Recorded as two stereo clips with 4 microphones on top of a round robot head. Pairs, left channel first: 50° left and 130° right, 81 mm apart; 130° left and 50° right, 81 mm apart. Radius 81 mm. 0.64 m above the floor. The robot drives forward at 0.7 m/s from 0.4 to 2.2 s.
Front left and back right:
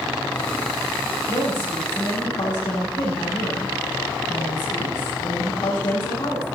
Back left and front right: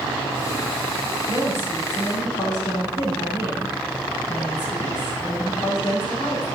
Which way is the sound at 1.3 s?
80° left.